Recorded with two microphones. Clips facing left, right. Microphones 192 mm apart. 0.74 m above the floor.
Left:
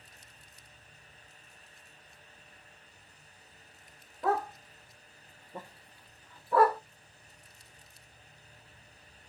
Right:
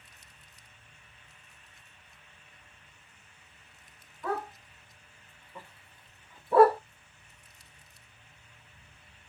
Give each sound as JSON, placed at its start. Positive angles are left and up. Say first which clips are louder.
{"t": 4.2, "sound": "a dog barking", "louder": "left 4 dB", "side_deg": 80, "distance_m": 1.5}